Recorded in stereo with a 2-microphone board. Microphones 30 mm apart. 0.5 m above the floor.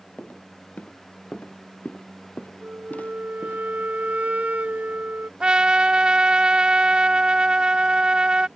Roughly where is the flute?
Right.